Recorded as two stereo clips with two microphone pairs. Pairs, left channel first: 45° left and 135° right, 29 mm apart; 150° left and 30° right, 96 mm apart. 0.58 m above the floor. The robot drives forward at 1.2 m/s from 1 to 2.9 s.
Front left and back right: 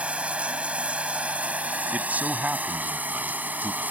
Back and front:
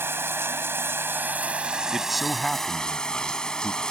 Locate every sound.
0.0 s running water: 95° right; by 3.9 s 125° right
1.9 s a man speaking: 115° right; by 3.8 s 130° right